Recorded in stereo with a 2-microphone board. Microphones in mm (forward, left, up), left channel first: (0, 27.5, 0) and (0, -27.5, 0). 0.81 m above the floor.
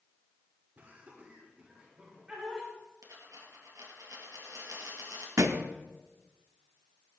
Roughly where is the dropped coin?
Right.